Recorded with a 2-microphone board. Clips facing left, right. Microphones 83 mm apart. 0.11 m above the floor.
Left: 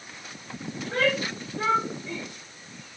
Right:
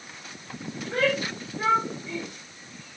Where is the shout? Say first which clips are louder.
Even; 80° left, 9.5 m.